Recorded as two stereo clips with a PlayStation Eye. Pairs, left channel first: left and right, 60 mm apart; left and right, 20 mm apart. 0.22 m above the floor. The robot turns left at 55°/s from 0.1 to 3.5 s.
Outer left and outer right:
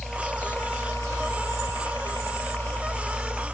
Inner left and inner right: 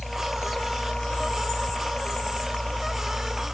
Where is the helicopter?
175° left; by 3.5 s 15° right.